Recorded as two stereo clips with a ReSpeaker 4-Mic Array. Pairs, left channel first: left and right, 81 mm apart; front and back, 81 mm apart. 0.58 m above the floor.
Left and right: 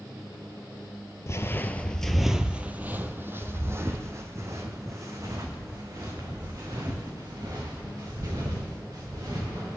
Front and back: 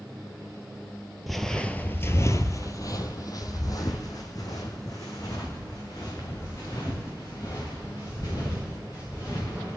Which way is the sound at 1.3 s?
90° left.